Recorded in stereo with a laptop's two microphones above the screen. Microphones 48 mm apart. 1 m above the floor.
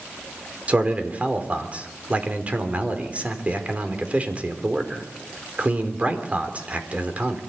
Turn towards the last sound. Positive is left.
turn(degrees=-30)  # may be behind; listen again after turning